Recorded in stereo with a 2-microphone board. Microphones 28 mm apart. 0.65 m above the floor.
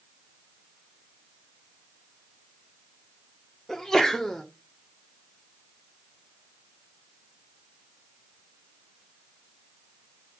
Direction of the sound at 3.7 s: 20° left (ahead or behind).